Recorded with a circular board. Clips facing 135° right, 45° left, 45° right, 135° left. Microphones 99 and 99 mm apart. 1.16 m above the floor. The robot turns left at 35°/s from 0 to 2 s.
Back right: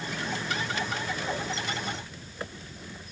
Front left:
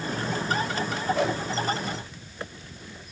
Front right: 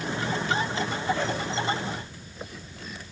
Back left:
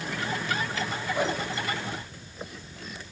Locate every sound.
1.1 s a whoosh: 60° left, 2.5 m; by 1.4 s 55° left, 2.5 m